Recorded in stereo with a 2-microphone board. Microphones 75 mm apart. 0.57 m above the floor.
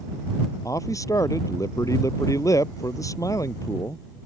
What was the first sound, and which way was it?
A man speaking, 45° left (ahead or behind).